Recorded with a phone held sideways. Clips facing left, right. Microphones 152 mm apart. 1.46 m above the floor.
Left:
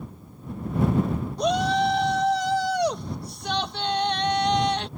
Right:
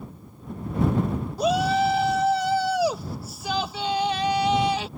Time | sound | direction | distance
1.4 | a shout | 5° right (ahead or behind) | ?